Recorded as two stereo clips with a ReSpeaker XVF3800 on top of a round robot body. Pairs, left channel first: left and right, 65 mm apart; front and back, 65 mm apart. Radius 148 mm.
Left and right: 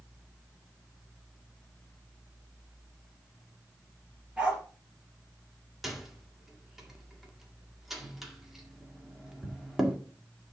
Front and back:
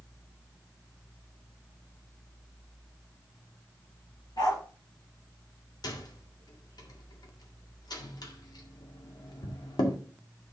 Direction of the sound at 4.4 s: 15° right.